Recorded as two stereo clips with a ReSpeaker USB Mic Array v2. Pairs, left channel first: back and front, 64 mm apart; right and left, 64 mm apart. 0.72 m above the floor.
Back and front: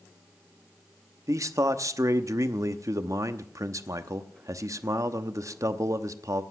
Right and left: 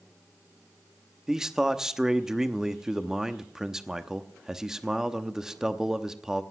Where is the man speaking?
10° left, 0.9 m.